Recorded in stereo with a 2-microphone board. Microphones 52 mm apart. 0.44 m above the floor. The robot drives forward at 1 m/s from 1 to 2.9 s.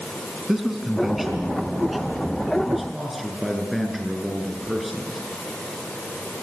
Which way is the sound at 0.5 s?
5° right (ahead or behind).